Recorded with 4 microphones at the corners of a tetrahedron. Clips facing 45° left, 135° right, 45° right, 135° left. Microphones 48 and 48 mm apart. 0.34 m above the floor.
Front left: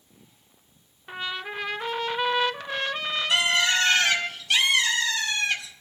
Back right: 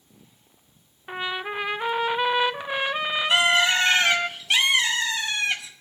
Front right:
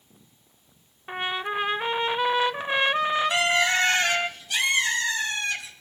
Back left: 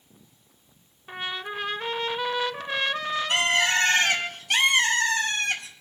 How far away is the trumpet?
About 0.5 m.